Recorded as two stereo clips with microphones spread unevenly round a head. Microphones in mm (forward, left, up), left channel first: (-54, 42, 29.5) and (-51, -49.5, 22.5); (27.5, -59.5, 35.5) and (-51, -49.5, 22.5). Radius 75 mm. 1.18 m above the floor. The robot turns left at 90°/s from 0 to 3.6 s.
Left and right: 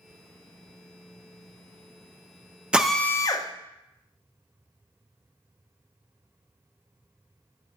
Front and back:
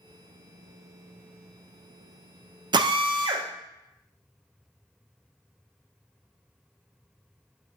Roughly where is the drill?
Behind.